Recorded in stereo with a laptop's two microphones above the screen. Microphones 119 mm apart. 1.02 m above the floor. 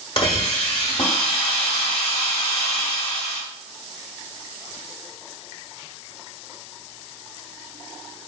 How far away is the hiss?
About 1.1 m.